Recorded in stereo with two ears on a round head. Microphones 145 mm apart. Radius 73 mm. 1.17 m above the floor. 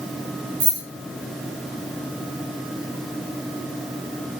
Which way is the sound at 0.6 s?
55° right (ahead or behind).